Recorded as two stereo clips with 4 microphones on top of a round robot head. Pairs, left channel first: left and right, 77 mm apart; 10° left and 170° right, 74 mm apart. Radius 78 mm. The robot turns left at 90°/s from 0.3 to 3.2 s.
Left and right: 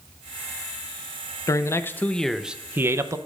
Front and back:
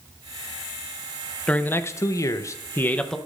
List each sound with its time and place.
1.5 s a man speaking: 80° left, 0.8 m; by 3.2 s 75° right, 0.8 m